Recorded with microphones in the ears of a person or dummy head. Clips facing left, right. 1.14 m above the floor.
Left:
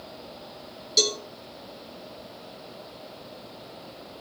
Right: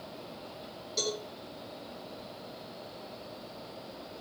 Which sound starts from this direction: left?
A cowbell, at 1.0 s.